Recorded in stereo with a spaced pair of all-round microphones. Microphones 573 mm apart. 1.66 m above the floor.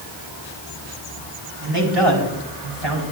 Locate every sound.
1.6 s a man speaking: 45° right (ahead or behind), 4.5 m; by 3.0 s 60° right (ahead or behind), 3.5 m